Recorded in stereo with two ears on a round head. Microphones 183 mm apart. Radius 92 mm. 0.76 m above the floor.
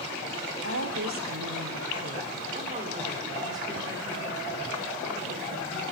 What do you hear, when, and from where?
0.6 s a woman speaking: 75° right (ahead or behind), 1.7 m; by 5.9 s centre (ahead or behind), 3.5 m